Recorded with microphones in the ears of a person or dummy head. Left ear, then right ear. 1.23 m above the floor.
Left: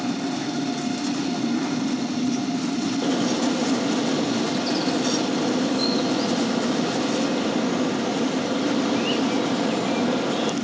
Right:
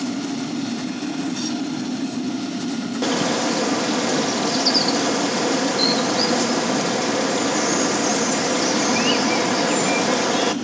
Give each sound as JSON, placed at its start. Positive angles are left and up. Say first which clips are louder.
{"t": 3.0, "sound": "a bird", "louder": "right 5 dB", "side_deg": -60, "distance_m": 0.9}